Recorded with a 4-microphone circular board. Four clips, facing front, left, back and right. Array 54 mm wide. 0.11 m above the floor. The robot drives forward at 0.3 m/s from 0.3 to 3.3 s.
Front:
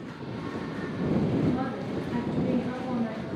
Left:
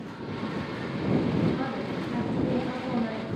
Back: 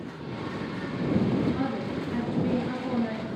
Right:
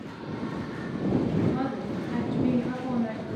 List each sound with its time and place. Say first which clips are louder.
1.5 s a woman speaking: right 1 dB, back 1 dB; 100° right, 1.2 m; by 3.3 s 135° right, 1.4 m